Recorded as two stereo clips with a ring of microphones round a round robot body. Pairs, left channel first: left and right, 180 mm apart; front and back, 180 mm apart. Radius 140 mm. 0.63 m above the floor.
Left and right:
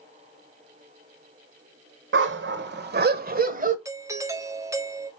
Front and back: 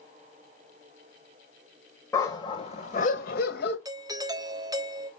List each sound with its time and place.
2.1 s a dog barking: 80° right, 1.2 m; by 3.8 s 45° right, 1.5 m
3.9 s a doorbell: 140° right, 1.0 m